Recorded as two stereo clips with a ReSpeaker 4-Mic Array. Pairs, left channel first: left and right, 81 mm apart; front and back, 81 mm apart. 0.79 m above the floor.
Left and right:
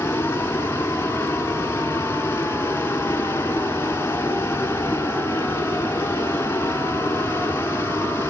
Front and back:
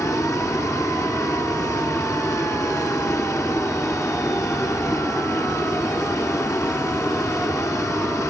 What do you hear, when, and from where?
0.0 s running water: 35° left, 1.2 m